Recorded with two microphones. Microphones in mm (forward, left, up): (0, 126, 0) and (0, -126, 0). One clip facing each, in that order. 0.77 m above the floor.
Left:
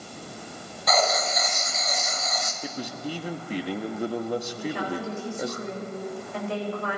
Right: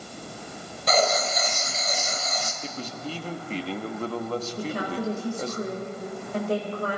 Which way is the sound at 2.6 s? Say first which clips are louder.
Left 4 dB; 15° left (ahead or behind).